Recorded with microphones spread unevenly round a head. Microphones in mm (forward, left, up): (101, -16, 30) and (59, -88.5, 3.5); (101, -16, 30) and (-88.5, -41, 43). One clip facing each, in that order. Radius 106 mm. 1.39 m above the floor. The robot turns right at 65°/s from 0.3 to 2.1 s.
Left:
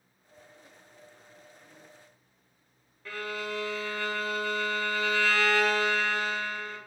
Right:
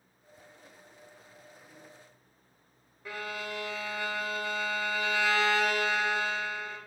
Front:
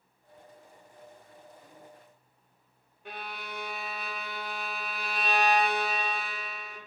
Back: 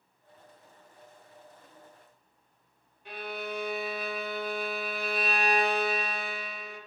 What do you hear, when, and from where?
3.0 s a violin: 40° right, 0.6 m